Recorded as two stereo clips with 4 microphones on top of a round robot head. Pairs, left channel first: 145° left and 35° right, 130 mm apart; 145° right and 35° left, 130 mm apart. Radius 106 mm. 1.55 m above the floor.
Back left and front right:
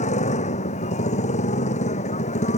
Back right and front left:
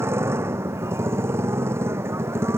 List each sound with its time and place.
0.0 s a motorcycle: 110° left